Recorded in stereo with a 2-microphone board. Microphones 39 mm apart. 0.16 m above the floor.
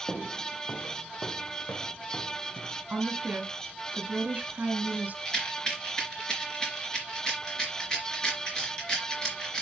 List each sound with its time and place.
0.1 s footsteps: 30° left (ahead or behind), 2.0 m; by 2.8 s 65° left (ahead or behind), 4 m
2.9 s a woman speaking: 45° right (ahead or behind), 1.5 m
5.2 s a rattle: 20° left (ahead or behind), 3 m